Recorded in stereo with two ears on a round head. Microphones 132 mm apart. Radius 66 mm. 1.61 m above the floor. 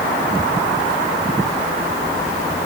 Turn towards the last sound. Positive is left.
No sound to turn to.